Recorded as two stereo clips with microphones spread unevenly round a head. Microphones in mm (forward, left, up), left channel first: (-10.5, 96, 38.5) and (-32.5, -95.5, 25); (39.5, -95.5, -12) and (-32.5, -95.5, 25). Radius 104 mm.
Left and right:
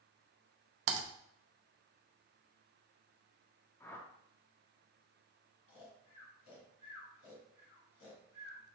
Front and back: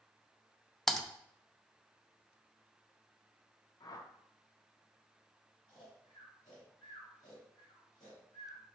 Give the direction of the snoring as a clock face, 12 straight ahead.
10 o'clock.